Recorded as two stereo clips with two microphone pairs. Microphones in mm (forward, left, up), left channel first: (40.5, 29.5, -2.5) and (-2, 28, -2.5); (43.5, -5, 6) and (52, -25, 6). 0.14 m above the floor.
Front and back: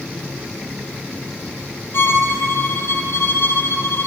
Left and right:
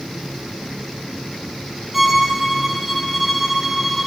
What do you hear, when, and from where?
1.9 s a violin: 25° left, 3 m